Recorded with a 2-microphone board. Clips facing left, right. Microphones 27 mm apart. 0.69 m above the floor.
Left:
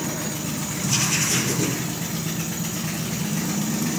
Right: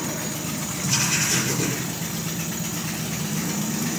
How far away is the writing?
About 5 m.